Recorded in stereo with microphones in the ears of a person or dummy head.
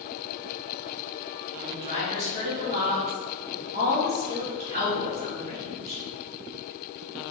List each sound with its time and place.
1.6 s a woman speaking: 35° right (ahead or behind), 1.7 m